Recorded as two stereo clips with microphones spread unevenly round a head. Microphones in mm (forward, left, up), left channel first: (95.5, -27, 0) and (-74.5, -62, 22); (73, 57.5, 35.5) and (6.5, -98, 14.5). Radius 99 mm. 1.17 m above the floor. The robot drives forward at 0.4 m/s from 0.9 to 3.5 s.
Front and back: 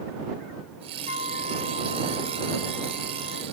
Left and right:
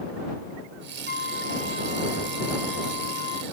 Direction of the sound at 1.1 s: 35° left.